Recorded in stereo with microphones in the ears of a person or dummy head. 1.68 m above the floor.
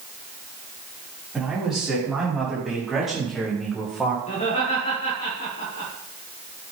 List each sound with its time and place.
1.3 s a man speaking: 5° right (ahead or behind), 5.5 m; by 4.2 s centre (ahead or behind), 3 m
4.3 s laughter: 40° left (ahead or behind), 5 m